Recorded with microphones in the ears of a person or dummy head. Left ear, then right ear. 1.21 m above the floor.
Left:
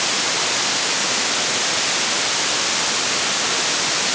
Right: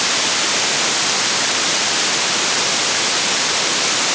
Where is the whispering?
I don't hear whispering.